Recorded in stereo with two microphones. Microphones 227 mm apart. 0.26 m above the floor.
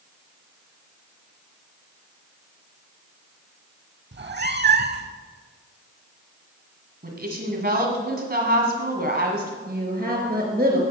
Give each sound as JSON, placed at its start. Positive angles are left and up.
{"t": 4.1, "sound": "a cat meowing", "side_deg": -50, "distance_m": 0.5}
{"t": 7.0, "sound": "a woman speaking", "side_deg": -45, "distance_m": 2.0}
{"t": 9.7, "sound": "a woman speaking", "side_deg": -40, "distance_m": 3.5}